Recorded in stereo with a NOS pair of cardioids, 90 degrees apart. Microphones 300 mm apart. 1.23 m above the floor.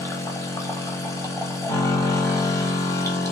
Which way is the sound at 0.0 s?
10° left.